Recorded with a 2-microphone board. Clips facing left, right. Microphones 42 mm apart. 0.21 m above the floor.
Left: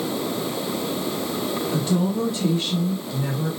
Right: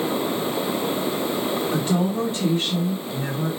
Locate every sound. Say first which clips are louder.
1.7 s a woman speaking: left 2 dB; 25° right (ahead or behind), 1.1 m; by 3.5 s 40° right (ahead or behind), 1.3 m